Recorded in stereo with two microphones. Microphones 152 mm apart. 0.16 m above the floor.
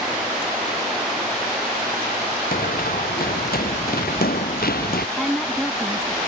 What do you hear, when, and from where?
2.5 s running footsteps: 75° left (ahead or behind); by 5.1 s 85° left
5.2 s a woman speaking: centre (ahead or behind)